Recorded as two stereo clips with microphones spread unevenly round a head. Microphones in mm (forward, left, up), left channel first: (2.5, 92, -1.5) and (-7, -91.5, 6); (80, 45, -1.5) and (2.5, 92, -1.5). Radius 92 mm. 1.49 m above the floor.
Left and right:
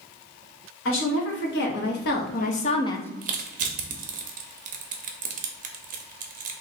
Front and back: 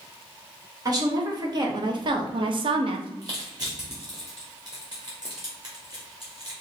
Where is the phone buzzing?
I don't hear a phone buzzing.